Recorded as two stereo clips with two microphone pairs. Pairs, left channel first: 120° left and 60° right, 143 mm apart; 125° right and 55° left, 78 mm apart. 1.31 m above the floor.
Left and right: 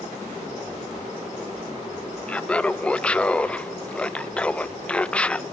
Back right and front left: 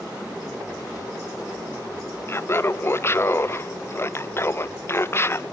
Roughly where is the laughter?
Behind right.